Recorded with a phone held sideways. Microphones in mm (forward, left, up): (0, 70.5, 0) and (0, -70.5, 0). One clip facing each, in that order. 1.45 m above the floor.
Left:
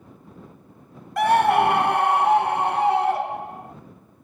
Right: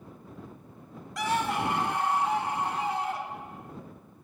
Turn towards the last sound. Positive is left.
turn(degrees=60)  # may be behind; listen again after turning